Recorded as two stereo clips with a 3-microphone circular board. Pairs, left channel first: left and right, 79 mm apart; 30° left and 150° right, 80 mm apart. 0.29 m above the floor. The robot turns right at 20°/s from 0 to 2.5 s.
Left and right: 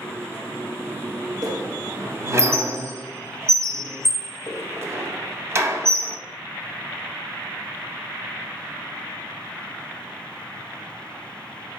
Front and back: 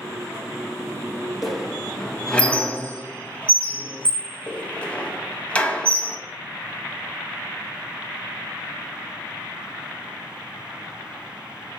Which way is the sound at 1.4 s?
65° right.